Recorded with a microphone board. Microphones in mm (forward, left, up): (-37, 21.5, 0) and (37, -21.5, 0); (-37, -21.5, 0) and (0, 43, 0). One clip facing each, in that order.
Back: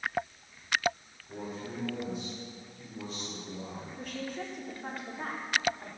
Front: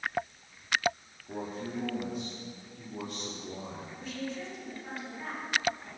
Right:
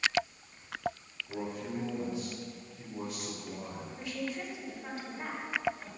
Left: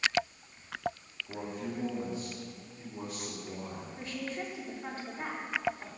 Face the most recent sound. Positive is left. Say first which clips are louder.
# even, right 1 dB
turn(degrees=115)